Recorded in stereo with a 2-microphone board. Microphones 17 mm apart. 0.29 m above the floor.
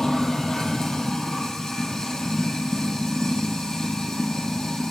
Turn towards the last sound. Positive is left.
turn(degrees=40)  # may be behind; listen again after turning